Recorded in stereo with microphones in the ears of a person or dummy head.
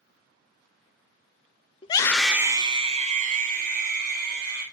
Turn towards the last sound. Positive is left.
turn(degrees=-50)  # may be behind; listen again after turning